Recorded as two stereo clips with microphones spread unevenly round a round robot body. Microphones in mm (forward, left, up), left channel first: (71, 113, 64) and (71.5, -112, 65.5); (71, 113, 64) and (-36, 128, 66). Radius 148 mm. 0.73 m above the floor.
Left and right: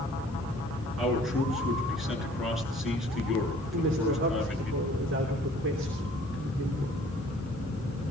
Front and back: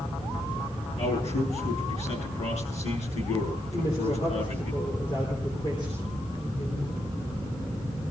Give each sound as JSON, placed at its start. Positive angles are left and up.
{"t": 1.0, "sound": "a man speaking", "azimuth_deg": 0, "distance_m": 8.5}
{"t": 3.7, "sound": "a woman speaking", "azimuth_deg": -65, "distance_m": 3.0}